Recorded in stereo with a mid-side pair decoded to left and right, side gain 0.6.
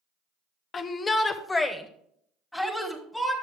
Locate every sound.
0.7 s a shout: 40° left, 0.8 m; by 3.3 s 5° left, 2 m